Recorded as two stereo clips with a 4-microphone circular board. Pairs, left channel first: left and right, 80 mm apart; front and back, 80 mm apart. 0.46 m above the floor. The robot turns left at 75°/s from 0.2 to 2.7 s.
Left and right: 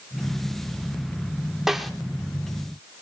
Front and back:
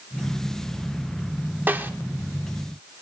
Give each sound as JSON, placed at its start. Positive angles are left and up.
{"t": 1.7, "sound": "a snare drum", "azimuth_deg": -170, "distance_m": 1.3}